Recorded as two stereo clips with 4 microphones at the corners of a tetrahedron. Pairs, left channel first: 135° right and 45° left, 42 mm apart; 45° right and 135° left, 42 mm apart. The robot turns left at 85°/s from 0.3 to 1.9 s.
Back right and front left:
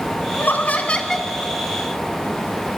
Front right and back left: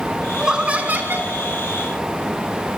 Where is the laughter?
145° right, 2.0 m; by 1.3 s 135° left, 2.0 m.